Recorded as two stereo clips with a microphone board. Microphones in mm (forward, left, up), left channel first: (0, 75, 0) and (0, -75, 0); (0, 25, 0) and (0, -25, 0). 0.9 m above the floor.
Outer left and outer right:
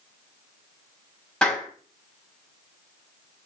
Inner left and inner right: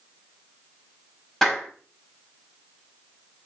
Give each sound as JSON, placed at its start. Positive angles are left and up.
{"t": 1.4, "sound": "a clap", "side_deg": 5, "distance_m": 5.0}